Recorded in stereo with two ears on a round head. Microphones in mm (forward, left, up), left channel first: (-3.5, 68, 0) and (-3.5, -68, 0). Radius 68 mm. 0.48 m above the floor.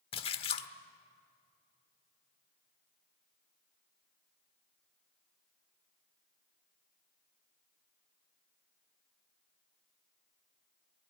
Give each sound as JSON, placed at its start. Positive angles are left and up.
{"t": 0.1, "sound": "a splash", "side_deg": 35, "distance_m": 1.2}